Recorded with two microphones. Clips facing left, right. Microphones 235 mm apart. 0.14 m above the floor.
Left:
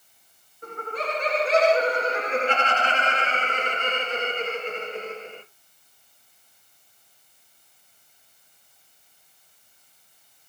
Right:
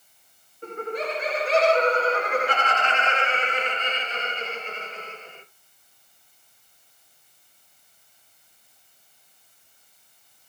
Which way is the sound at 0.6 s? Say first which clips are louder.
Right 3 dB; 25° right (ahead or behind).